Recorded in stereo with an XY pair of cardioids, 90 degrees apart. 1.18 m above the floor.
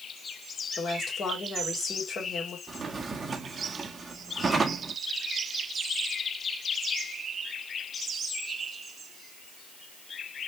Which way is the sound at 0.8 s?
60° left.